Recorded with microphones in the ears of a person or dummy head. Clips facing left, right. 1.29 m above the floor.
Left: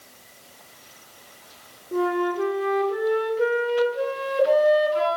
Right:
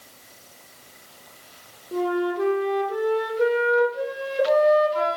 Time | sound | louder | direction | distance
1.9 | a flute | even | 5° left (ahead or behind) | 0.5 m